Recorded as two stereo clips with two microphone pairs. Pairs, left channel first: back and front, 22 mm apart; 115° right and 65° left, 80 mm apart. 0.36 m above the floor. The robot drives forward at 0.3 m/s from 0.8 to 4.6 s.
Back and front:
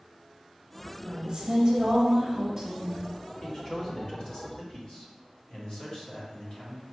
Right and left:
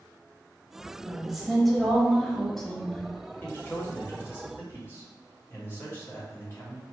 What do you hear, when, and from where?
1.0 s a woman speaking: 20° right, 1.3 m; by 3.0 s 45° right, 1.0 m
3.4 s a man speaking: 150° right, 1.4 m; by 6.8 s 160° right, 1.6 m